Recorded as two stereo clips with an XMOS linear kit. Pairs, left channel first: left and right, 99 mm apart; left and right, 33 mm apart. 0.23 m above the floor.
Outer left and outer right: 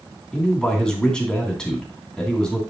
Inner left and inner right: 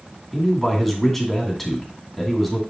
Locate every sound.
0.3 s a man speaking: 5° left (ahead or behind), 2 m